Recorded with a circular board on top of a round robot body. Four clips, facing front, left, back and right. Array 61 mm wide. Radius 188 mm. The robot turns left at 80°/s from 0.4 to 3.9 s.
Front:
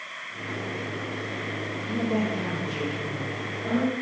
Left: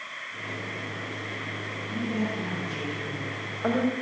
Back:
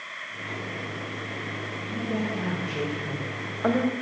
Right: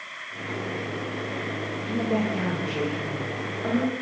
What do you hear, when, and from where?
1.9 s a woman speaking: 55° right, 3.5 m; by 3.9 s 140° left, 3.5 m